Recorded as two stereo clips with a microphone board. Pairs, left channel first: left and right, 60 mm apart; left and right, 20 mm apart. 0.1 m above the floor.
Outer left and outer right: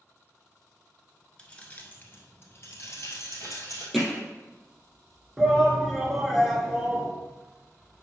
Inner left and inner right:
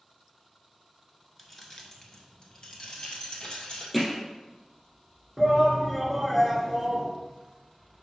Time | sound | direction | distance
1.4 | keys jangling | 15° left (ahead or behind) | 0.9 m
3.9 | hammering | centre (ahead or behind) | 2.5 m
5.4 | a shout | 5° right (ahead or behind) | 1.1 m